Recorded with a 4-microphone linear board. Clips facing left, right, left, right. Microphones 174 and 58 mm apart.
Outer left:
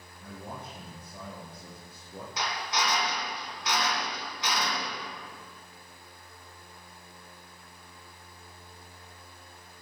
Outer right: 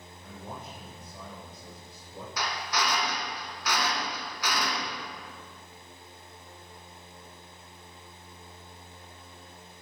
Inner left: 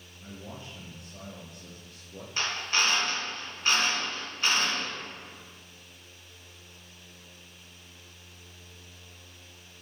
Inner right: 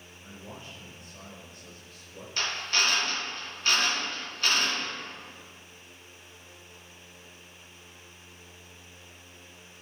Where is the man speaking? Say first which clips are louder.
Outer left 1 dB, inner left 2 dB; 70° left (ahead or behind), 3 m.